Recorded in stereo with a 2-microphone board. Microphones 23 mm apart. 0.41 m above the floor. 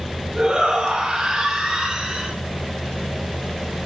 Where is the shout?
20° right (ahead or behind), 7.5 m; by 2.3 s 15° right (ahead or behind), 4.5 m.